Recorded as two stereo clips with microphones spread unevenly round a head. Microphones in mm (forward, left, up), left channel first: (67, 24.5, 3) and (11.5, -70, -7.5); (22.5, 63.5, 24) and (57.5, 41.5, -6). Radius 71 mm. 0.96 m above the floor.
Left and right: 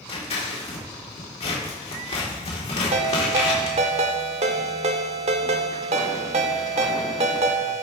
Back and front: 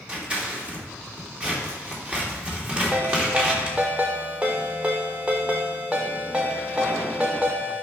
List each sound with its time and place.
0.1 s scissors: 30° left, 2.5 m
2.9 s a ringtone: 140° right, 0.8 m